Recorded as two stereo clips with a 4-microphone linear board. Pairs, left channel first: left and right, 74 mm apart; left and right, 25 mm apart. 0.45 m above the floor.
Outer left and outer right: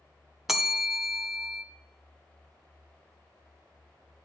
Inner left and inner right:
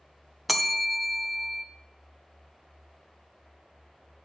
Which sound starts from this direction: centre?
A bell, at 0.5 s.